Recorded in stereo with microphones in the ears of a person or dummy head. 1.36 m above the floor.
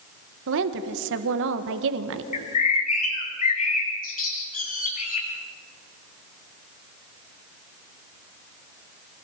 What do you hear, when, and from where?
0.5 s a woman speaking: 70° right (ahead or behind), 1.3 m
2.3 s a bird: 40° left (ahead or behind), 3 m